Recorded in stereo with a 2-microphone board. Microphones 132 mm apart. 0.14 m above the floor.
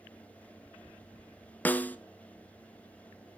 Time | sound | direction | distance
1.6 | a snare drum | 15° left (ahead or behind) | 0.7 m